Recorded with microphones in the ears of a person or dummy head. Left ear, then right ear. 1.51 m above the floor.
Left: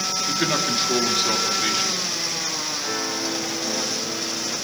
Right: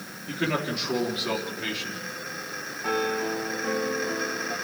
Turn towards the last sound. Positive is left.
turn(degrees=-85)